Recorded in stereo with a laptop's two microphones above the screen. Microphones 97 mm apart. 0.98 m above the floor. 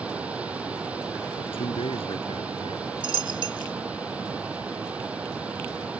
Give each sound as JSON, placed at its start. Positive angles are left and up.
{"t": 0.0, "sound": "a machine running", "side_deg": -15}
{"t": 1.4, "sound": "a man speaking", "side_deg": 70}
{"t": 3.0, "sound": "a dropped coin", "side_deg": -55}